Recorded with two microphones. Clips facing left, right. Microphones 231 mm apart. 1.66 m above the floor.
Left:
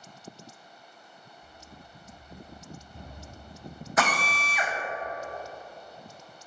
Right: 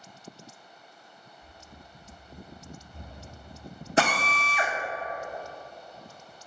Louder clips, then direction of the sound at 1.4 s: Left 1 dB; 25° right (ahead or behind).